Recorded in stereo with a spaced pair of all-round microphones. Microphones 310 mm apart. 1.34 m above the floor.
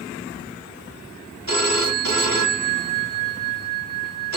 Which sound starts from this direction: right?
A phone ringing, at 1.5 s.